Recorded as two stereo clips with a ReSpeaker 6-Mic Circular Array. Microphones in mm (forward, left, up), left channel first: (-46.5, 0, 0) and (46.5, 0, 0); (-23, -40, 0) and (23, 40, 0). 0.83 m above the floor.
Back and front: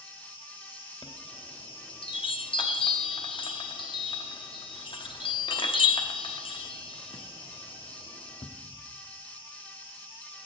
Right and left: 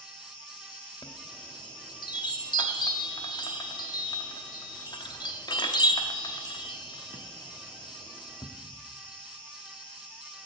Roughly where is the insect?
Behind.